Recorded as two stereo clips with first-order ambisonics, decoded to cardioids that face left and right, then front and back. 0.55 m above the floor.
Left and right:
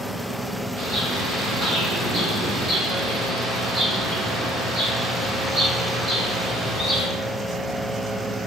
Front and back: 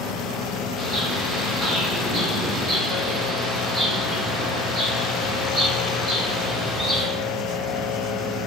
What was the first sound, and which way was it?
A bird, 100° right.